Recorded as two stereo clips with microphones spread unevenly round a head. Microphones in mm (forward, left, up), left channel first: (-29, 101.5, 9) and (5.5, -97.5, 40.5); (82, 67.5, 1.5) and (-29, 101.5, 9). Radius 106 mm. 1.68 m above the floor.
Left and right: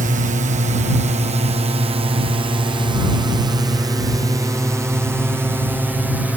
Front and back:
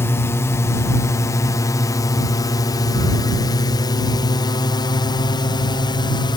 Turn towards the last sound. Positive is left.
turn(degrees=10)